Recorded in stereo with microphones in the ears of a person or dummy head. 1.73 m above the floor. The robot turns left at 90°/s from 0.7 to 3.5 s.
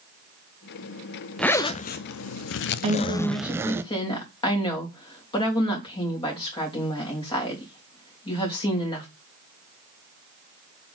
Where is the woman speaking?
140° right, 3 m; by 9.1 s 160° left, 3 m.